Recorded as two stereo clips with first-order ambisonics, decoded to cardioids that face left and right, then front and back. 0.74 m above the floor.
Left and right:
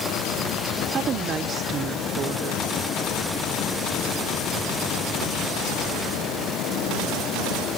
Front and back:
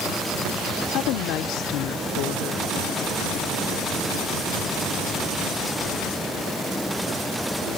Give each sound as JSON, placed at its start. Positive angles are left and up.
{"t": 0.9, "sound": "a woman speaking", "azimuth_deg": -30}